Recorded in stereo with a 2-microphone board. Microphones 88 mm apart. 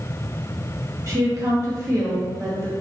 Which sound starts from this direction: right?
A woman speaking, at 1.1 s.